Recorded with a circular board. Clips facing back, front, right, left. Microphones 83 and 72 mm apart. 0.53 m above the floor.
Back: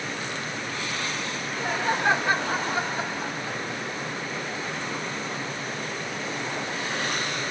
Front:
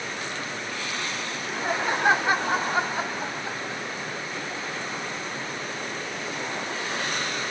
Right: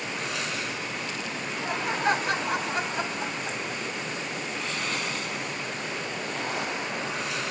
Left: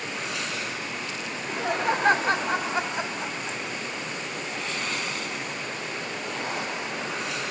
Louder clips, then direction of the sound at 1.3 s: Front 3 dB, left 5 dB; 80° left.